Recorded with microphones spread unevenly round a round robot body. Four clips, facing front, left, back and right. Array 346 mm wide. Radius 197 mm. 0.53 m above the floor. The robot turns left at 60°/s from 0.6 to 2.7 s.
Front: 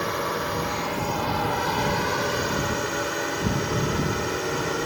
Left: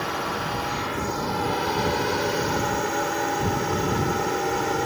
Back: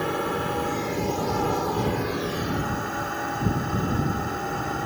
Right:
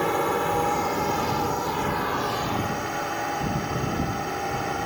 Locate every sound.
0.0 s a drone: 145° right; by 4.9 s 90° left